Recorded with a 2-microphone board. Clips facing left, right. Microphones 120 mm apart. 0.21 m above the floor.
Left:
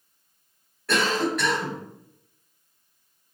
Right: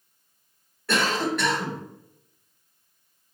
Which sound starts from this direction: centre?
A cough, at 0.9 s.